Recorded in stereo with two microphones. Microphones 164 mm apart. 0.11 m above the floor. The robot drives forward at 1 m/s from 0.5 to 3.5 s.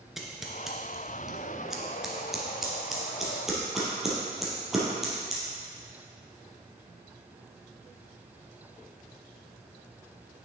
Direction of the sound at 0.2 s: Centre (ahead or behind).